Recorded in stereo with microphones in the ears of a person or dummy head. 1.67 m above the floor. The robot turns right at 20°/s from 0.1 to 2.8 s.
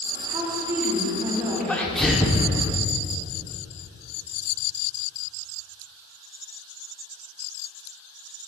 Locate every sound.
0.3 s a woman speaking: 30° right, 2.5 m; by 1.9 s 5° left, 2.5 m
1.7 s a sneeze: 5° left (ahead or behind), 0.7 m; by 2.5 s 5° right (ahead or behind), 0.7 m